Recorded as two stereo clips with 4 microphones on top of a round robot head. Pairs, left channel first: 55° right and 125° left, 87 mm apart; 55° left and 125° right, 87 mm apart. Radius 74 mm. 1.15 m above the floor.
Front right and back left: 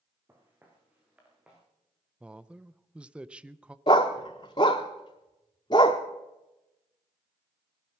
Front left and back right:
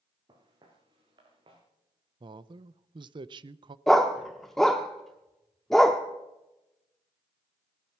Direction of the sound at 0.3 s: 170° right.